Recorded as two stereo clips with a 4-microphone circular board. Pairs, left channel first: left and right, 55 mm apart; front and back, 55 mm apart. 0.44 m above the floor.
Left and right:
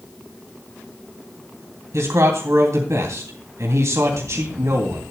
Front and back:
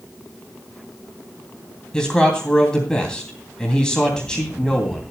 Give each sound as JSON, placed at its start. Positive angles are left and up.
{"t": 1.9, "sound": "a man speaking", "azimuth_deg": -75, "distance_m": 3.0}